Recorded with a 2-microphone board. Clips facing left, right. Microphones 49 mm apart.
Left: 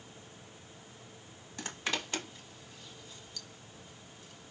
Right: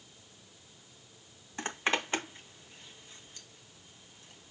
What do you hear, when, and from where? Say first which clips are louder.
1.6 s a zipper: right 5 dB; 30° right (ahead or behind), 1.9 m